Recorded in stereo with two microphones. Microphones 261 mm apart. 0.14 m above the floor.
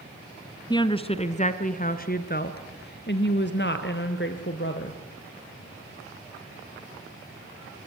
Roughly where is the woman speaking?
Centre.